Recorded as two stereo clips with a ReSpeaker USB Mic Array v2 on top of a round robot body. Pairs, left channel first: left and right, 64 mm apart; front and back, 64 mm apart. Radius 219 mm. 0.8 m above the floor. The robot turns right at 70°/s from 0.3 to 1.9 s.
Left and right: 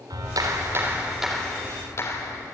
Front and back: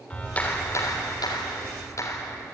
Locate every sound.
0.1 s a clap: 70° right, 3.5 m; by 2.4 s 40° left, 3.5 m